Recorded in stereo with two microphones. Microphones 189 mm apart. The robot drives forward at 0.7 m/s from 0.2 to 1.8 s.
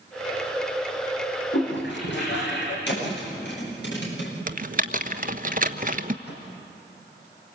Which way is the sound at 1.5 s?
70° left (ahead or behind).